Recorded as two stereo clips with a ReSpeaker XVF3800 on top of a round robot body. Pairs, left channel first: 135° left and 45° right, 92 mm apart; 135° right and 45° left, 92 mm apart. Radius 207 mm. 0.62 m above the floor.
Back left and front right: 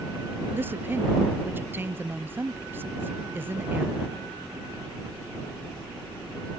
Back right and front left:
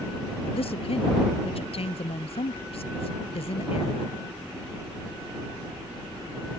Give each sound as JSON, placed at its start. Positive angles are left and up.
{"t": 0.5, "sound": "a woman speaking", "azimuth_deg": -115}